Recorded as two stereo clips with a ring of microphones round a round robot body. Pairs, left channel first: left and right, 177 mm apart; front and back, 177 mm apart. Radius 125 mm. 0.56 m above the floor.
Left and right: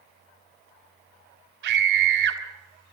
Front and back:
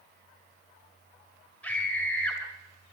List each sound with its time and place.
1.6 s a scream: 85° right, 2.5 m